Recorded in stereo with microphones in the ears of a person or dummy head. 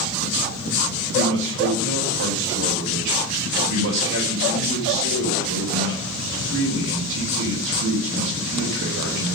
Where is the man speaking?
65° right (ahead or behind), 4.5 m.